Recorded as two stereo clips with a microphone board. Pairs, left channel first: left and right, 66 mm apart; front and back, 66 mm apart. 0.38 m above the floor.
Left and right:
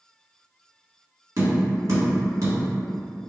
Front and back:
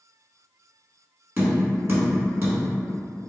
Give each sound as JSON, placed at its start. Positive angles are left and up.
{"t": 1.4, "sound": "tapping", "azimuth_deg": -130, "distance_m": 1.4}